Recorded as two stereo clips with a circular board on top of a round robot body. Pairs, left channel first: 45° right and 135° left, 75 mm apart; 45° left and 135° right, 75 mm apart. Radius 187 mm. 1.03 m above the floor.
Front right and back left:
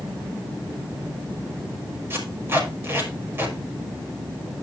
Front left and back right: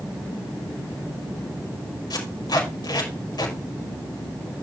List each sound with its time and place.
2.1 s tape being pulled: 75° left, 5 m